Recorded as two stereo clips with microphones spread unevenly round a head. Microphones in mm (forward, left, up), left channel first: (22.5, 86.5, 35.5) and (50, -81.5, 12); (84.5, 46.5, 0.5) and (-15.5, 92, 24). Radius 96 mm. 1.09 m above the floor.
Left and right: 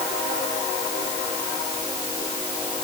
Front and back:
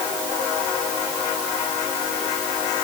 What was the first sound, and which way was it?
Only background noise.